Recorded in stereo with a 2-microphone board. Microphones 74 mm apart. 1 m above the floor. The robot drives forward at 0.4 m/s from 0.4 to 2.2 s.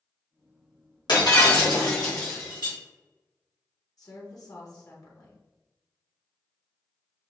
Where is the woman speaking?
55° left (ahead or behind), 1.2 m.